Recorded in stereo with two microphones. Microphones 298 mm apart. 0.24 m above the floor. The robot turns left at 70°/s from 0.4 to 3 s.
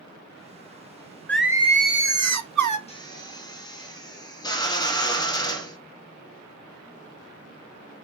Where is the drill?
20° left (ahead or behind), 0.9 m; by 5.8 s 15° left (ahead or behind), 0.9 m.